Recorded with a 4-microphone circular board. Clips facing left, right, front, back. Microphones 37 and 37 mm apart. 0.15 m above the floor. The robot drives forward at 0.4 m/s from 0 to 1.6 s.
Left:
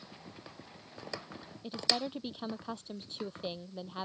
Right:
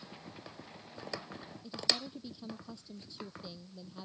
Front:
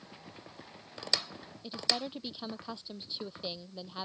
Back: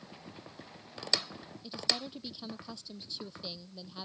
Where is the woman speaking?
65° left.